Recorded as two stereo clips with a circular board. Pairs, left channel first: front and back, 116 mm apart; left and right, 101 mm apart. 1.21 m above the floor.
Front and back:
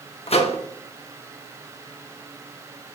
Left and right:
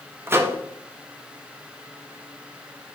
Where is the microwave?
25° right, 0.5 m.